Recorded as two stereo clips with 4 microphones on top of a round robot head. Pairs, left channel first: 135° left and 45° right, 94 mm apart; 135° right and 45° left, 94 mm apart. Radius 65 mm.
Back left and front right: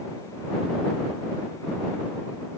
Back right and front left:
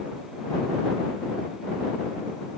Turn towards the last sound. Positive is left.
No sound to turn to.